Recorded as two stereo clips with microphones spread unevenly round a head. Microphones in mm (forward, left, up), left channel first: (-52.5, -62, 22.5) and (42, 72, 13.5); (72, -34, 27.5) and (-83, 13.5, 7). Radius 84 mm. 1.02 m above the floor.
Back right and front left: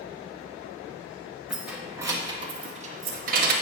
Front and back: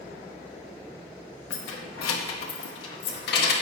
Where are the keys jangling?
35° right, 1.1 m; by 3.5 s 20° left, 1.3 m.